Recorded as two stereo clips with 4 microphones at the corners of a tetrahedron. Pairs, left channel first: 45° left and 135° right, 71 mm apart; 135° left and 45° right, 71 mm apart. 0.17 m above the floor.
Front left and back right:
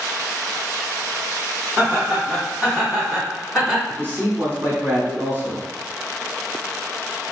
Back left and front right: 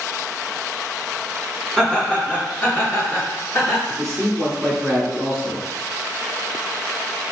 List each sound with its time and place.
1.8 s laughter: 150° right, 1.8 m; by 3.8 s 140° left, 2.5 m
3.9 s a man speaking: 140° right, 1.7 m